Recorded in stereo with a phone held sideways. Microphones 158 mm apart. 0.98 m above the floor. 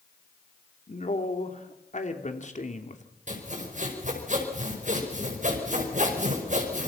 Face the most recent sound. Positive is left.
turn(degrees=-55)  # may be behind; listen again after turning